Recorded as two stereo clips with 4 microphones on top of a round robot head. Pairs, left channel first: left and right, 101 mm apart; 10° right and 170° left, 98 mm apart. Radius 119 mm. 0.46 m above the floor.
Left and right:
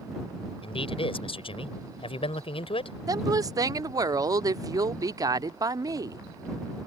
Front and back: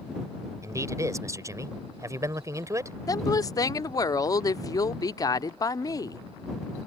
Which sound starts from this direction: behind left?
A man speaking, at 0.6 s.